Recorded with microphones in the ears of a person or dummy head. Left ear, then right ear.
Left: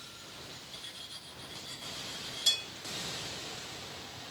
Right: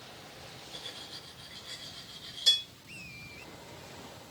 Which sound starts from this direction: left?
Cutlery clinking, at 0.7 s.